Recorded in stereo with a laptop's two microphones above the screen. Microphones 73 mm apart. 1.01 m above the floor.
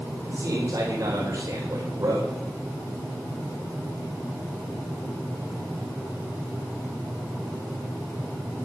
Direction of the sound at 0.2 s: 50° right (ahead or behind).